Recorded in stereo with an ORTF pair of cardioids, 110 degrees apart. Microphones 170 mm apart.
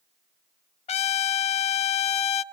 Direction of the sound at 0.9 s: 40° left.